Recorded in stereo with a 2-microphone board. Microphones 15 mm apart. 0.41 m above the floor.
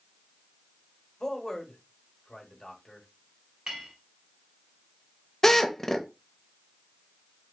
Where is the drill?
30° left (ahead or behind), 0.6 m.